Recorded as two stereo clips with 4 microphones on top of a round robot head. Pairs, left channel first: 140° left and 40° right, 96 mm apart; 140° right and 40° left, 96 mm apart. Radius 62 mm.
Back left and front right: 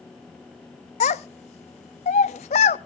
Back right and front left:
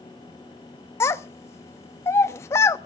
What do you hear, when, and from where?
1.0 s a child speaking: 155° left, 0.6 m